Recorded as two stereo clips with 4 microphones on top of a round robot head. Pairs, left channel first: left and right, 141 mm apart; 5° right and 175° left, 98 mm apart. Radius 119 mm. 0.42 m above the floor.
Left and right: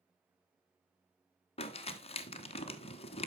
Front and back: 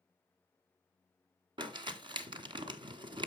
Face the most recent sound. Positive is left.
turn(degrees=135)